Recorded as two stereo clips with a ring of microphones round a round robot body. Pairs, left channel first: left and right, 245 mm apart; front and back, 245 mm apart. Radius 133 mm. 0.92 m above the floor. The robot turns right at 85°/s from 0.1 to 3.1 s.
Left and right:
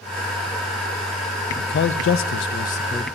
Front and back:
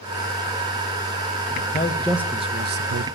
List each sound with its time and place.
1.6 s a man speaking: 45° left, 0.5 m; by 3.1 s 170° left, 0.5 m